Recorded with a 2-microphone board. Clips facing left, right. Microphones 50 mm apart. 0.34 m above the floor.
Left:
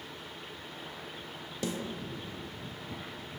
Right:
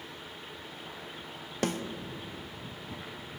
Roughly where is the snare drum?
Right.